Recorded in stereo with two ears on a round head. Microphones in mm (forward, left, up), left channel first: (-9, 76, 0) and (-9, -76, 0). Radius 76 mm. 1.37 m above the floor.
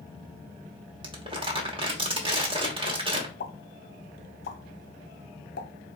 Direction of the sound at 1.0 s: 30° right (ahead or behind).